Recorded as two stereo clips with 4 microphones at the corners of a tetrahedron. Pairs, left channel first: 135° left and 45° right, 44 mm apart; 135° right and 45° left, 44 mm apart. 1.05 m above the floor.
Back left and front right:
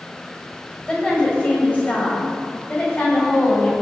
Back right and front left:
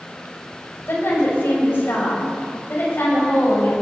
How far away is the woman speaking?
About 6.5 m.